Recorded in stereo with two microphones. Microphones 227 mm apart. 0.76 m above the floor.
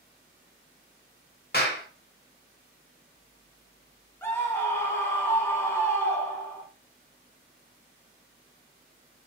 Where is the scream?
10° left (ahead or behind), 1.0 m.